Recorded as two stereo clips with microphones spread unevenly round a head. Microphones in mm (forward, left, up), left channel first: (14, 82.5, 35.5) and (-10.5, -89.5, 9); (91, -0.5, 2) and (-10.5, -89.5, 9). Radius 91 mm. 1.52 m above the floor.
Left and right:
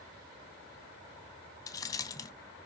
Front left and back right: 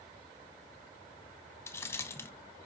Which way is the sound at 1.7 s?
100° left.